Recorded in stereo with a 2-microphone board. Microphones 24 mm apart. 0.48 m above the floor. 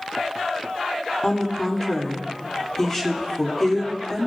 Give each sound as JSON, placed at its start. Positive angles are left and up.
{"t": 1.2, "sound": "a woman speaking", "side_deg": 15, "distance_m": 1.3}